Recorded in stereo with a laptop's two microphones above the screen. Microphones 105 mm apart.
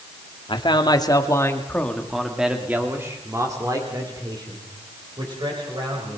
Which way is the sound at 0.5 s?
50° left (ahead or behind).